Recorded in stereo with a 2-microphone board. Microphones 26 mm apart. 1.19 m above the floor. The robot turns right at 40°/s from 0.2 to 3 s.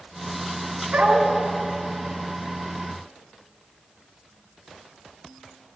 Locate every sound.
0.9 s a dog barking: 60° right (ahead or behind), 3 m; by 1.3 s 45° right (ahead or behind), 3 m